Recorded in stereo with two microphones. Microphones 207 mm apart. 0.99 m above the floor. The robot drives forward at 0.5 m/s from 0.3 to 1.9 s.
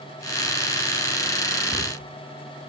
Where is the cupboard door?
25° left (ahead or behind), 9 m.